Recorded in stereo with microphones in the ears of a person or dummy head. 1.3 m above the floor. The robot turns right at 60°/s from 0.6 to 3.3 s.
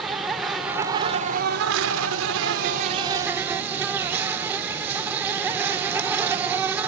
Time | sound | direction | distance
0.0 | an insect | 170° right | 0.8 m